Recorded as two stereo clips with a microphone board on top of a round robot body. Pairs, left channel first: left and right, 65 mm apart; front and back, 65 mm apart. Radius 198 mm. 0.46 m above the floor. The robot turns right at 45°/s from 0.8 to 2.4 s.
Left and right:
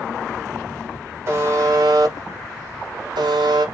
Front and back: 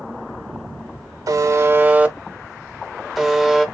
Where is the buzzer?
145° right, 0.5 m; by 3.6 s 95° right, 0.5 m.